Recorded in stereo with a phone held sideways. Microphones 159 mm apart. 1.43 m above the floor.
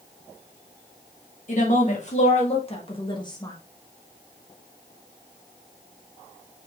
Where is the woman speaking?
50° left (ahead or behind), 2.5 m; by 3.5 s 20° left (ahead or behind), 1.2 m.